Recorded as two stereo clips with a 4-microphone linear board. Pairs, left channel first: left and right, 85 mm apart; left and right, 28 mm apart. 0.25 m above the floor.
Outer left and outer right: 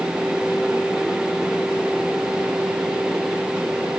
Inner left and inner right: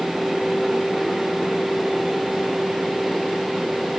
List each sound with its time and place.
Only background noise.